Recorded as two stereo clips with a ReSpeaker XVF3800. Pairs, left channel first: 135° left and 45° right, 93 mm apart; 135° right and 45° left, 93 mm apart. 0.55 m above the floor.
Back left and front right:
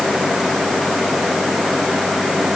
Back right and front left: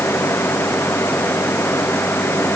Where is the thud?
I don't hear a thud.